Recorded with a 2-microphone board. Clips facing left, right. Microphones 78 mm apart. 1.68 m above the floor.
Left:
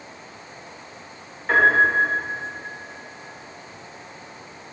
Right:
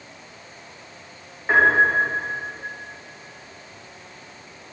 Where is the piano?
20° right (ahead or behind), 4.5 m.